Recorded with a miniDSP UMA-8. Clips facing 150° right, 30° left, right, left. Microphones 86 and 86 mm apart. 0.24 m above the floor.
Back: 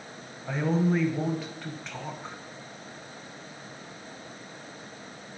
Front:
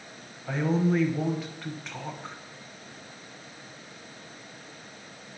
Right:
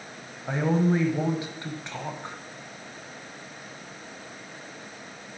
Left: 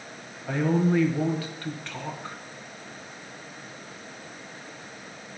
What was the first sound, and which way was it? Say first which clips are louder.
A man speaking: even, even; 60° right.